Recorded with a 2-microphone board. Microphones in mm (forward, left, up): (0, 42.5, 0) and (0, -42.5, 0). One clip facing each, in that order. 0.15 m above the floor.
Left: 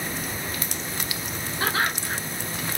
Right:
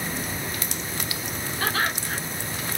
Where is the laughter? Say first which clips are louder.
Left 1 dB; 20° left (ahead or behind), 2 m.